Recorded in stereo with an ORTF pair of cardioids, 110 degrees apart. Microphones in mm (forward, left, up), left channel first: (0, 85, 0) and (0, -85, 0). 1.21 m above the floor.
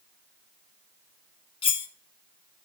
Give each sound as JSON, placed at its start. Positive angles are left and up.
{"t": 1.6, "sound": "cutlery clinking", "azimuth_deg": 35, "distance_m": 0.8}